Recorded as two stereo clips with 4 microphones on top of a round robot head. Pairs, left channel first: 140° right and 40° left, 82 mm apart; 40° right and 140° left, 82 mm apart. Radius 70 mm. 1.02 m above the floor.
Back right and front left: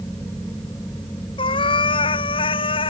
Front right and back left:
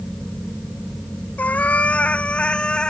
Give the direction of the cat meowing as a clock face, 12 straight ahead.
4 o'clock.